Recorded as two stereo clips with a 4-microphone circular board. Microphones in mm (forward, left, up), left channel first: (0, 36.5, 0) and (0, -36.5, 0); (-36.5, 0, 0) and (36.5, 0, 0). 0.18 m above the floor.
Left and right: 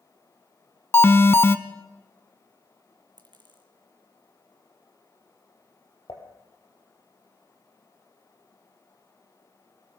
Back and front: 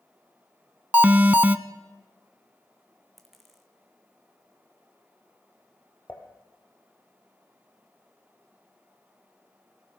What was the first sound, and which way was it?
An alarm, 55° left.